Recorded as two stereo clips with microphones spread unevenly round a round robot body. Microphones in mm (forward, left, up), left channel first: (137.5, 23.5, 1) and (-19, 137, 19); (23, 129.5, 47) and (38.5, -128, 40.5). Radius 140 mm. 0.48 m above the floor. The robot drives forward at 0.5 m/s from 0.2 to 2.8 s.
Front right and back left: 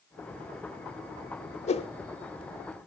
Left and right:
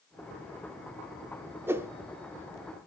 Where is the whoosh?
10° right, 0.9 m; by 1.9 s 15° right, 0.9 m.